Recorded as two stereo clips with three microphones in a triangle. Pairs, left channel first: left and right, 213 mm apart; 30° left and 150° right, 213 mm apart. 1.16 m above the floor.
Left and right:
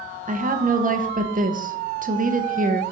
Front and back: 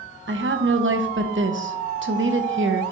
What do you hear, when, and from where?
0.3 s a woman speaking: 140° right, 0.7 m